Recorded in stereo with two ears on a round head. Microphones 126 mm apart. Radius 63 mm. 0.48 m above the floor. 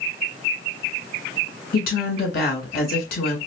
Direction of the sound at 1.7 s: 65° left (ahead or behind).